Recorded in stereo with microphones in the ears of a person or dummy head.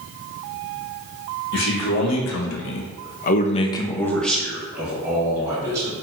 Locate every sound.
1.5 s a man speaking: 65° left (ahead or behind), 1.2 m; by 5.9 s 15° right (ahead or behind), 1.7 m